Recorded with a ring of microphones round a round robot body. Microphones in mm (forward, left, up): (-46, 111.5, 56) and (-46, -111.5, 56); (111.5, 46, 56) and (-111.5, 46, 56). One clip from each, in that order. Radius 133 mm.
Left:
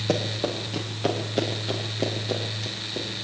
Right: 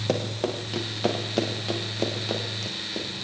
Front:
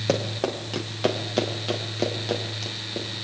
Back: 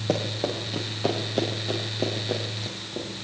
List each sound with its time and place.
0.1 s running footsteps: 15° right, 5.5 m; by 3.1 s 35° right, 8.5 m